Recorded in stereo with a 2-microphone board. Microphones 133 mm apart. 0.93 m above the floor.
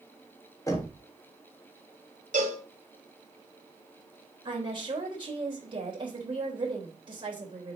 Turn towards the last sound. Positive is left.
turn(degrees=-40)  # may be behind; listen again after turning